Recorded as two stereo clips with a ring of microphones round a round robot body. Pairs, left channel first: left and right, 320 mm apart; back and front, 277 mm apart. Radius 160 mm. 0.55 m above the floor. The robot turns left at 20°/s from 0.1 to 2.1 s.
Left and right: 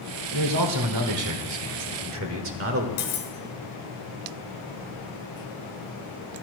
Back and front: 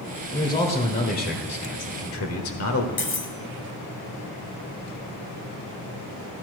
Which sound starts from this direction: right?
A man speaking, at 0.3 s.